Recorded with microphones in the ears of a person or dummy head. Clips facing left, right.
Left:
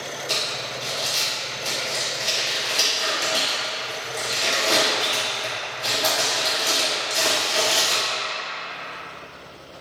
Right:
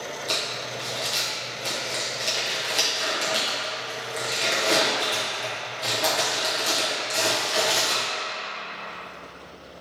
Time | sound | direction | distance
0.3 | crumpling | 20° right (ahead or behind) | 0.8 m